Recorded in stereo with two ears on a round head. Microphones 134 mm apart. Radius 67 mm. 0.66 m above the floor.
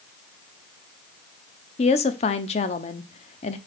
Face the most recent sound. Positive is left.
turn(degrees=45)  # may be behind; listen again after turning